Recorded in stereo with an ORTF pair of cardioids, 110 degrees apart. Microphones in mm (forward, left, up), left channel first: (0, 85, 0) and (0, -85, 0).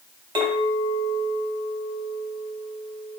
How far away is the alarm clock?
No alarm clock in this recording.